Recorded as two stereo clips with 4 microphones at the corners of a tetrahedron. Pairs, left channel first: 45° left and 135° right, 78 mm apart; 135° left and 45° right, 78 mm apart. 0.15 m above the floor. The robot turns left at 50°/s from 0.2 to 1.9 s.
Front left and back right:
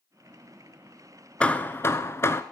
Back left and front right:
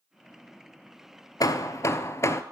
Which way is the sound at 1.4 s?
120° left.